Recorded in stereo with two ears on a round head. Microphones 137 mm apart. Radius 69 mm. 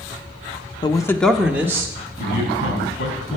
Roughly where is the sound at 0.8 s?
Left.